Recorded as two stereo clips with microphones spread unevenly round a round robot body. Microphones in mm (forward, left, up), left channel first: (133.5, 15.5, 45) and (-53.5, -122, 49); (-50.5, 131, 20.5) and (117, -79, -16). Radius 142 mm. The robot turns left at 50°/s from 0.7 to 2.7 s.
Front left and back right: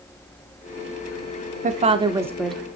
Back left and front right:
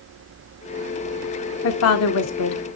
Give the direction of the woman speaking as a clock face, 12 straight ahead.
6 o'clock.